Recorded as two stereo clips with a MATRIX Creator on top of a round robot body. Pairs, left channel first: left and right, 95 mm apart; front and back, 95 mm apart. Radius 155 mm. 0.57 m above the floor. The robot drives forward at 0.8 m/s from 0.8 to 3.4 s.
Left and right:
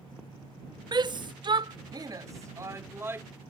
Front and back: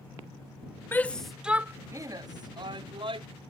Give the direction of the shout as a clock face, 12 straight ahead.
2 o'clock.